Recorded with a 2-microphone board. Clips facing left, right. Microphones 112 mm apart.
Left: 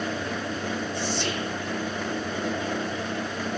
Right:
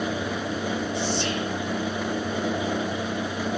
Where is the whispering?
25° right (ahead or behind), 2 m.